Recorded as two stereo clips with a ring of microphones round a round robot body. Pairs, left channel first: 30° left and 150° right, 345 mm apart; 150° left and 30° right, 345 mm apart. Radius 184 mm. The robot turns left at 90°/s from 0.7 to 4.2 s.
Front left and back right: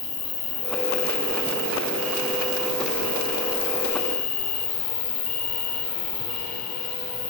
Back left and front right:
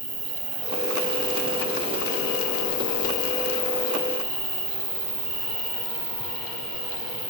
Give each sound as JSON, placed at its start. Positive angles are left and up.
{"t": 0.0, "sound": "an insect", "azimuth_deg": -10, "distance_m": 3.5}